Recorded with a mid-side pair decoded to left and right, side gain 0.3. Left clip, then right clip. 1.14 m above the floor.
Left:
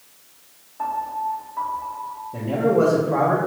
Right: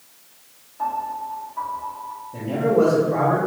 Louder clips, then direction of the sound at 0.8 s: Left 1 dB; 40° left.